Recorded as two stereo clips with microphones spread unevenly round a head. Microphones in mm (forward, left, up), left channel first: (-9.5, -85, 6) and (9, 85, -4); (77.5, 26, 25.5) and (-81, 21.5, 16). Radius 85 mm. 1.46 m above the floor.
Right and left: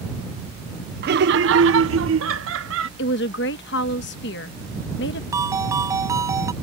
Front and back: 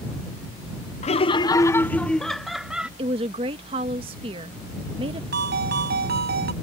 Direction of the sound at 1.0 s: 50° left.